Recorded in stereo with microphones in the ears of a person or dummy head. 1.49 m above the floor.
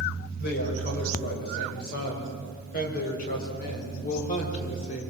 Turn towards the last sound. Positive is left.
turn(degrees=40)  # may be behind; listen again after turning